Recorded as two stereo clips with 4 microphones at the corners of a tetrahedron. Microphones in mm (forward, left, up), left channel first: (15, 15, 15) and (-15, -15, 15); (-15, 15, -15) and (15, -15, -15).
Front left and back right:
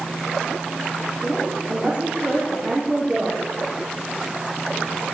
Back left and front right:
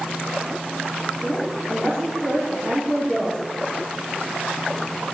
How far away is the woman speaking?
About 4.5 m.